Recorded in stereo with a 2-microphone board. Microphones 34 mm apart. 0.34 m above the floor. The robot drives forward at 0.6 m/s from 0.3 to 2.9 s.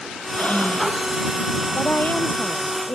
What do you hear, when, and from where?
0.3 s breathing: 45° left (ahead or behind)
1.8 s a woman speaking: 60° left (ahead or behind); by 3.0 s 55° left (ahead or behind)